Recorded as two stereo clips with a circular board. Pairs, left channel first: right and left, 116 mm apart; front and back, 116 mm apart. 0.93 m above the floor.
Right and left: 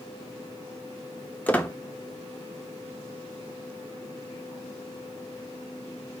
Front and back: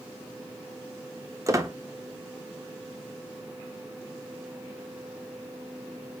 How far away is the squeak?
About 0.5 m.